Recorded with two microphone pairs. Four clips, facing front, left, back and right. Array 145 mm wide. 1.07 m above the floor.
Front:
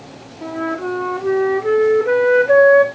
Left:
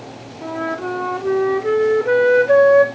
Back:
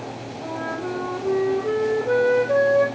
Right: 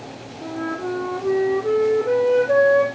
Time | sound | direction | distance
0.4 | a flute | 50° left | 0.5 m